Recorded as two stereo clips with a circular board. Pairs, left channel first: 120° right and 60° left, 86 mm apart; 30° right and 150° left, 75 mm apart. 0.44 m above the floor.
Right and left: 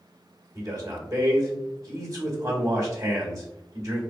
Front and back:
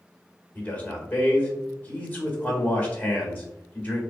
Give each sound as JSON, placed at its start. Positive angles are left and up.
{"t": 0.6, "sound": "a man speaking", "azimuth_deg": 25, "distance_m": 1.5}